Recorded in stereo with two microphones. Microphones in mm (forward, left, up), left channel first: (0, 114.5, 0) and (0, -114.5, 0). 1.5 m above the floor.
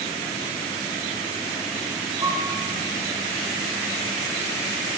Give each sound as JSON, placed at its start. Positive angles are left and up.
{"t": 2.2, "sound": "a piano", "side_deg": -35, "distance_m": 1.5}